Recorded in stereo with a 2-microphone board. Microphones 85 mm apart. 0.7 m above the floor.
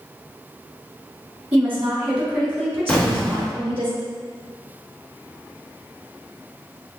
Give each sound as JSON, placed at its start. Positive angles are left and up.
{"t": 1.5, "sound": "a woman speaking", "side_deg": -15, "distance_m": 1.9}
{"t": 2.9, "sound": "an explosion", "side_deg": 10, "distance_m": 0.9}